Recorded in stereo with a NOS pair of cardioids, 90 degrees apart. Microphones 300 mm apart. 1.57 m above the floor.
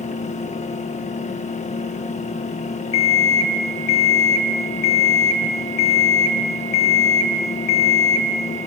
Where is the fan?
25° left, 1.7 m.